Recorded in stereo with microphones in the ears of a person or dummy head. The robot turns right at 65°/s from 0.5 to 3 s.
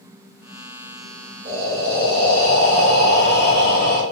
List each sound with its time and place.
1.4 s breathing: 40° right, 1.2 m; by 4.0 s 60° left, 1.2 m